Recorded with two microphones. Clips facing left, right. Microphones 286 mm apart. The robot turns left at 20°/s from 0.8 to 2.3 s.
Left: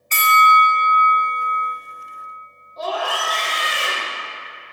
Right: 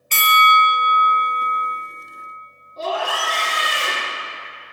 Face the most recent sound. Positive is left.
turn(degrees=-30)  # may be behind; listen again after turning